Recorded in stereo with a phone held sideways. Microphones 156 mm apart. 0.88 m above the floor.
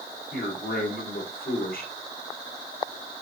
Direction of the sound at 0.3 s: 75° left (ahead or behind).